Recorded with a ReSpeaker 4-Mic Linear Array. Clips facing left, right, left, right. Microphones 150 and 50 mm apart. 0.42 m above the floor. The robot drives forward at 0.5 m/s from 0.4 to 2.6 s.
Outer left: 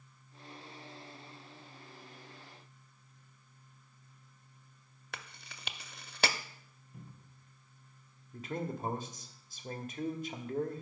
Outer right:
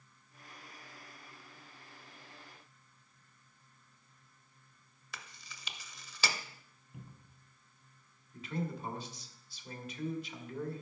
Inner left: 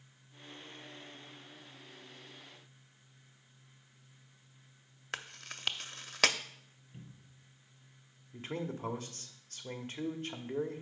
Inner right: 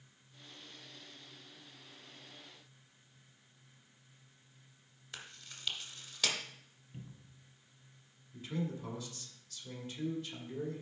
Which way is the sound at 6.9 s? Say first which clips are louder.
Even, inner right 2 dB; 10° right (ahead or behind).